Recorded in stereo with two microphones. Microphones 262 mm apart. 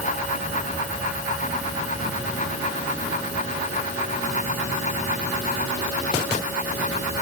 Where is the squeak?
I don't hear a squeak.